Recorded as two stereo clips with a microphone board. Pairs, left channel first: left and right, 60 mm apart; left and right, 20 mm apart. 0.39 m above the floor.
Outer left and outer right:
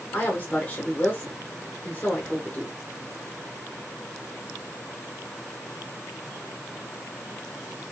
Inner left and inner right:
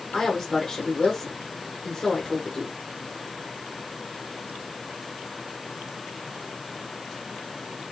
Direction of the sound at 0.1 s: 25° left (ahead or behind).